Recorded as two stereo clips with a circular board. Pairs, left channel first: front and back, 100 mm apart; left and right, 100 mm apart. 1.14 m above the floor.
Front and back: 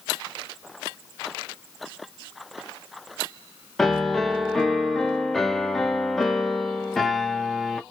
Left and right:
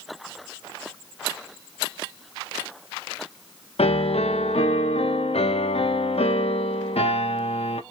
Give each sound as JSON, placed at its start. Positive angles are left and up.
{"t": 3.8, "sound": "a piano", "azimuth_deg": 85, "distance_m": 0.6}